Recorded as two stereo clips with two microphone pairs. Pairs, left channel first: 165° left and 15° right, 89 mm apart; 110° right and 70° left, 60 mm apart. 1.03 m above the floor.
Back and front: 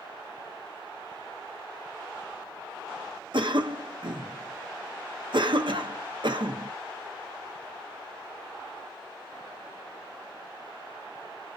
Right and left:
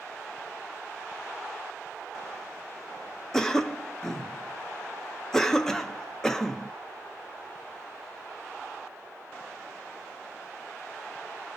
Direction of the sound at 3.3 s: 35° right.